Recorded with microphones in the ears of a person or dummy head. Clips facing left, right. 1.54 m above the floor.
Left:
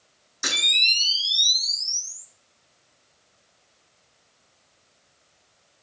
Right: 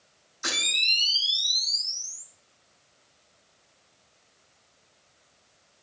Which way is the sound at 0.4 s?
75° left (ahead or behind).